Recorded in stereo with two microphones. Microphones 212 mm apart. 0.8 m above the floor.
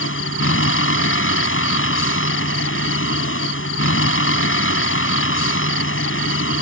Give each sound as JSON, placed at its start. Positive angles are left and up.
{"t": 0.0, "sound": "a vehicle", "side_deg": 85}